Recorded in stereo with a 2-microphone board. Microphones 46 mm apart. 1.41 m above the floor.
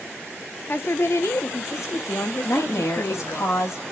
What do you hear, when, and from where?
0.7 s a woman speaking: 50° left (ahead or behind), 1.0 m; by 3.4 s 70° left (ahead or behind), 2 m
2.4 s a woman speaking: 85° left, 2.5 m